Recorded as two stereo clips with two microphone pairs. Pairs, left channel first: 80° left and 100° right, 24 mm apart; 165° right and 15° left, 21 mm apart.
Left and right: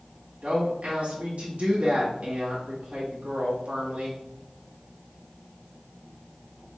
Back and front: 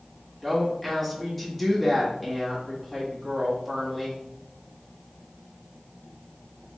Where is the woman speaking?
80° right, 1.3 m.